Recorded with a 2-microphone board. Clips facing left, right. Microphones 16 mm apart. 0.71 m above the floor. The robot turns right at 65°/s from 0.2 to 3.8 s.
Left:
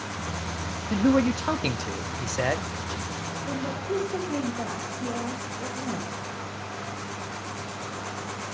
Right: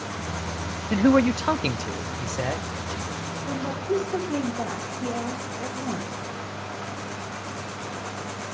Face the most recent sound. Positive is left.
turn(degrees=-20)  # may be behind; listen again after turning